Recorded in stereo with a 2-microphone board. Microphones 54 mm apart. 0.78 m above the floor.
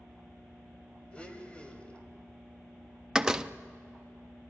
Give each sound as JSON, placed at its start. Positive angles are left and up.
{"t": 1.1, "sound": "a blender", "side_deg": 25, "distance_m": 1.8}
{"t": 3.1, "sound": "a door slam", "side_deg": -10, "distance_m": 0.5}